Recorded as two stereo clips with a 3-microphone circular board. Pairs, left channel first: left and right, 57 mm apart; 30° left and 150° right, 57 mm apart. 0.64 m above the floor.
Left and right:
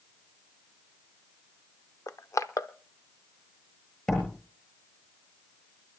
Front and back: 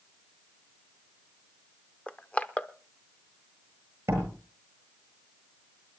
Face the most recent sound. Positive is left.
turn(degrees=165)